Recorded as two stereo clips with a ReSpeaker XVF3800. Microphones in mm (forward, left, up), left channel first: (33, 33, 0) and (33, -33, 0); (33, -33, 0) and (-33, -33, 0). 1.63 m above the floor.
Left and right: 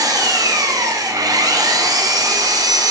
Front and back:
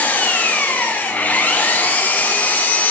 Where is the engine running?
65° right, 1.0 m.